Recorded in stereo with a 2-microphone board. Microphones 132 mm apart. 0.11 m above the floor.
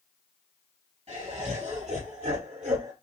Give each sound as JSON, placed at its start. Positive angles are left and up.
{"t": 1.1, "sound": "laughter", "side_deg": -50, "distance_m": 2.5}